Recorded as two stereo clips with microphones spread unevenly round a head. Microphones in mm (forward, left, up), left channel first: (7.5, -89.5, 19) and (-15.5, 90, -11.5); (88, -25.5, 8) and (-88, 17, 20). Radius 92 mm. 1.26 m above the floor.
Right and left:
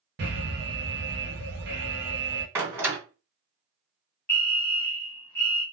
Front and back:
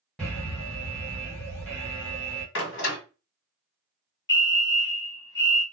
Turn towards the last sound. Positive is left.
turn(degrees=5)